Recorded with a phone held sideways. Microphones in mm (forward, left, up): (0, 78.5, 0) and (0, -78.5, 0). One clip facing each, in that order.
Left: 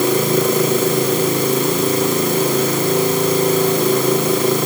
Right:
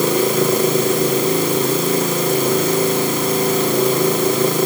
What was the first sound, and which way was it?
Only background noise.